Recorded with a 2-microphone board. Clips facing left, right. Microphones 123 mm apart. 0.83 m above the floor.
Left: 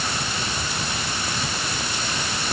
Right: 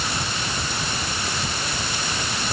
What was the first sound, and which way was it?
Only background noise.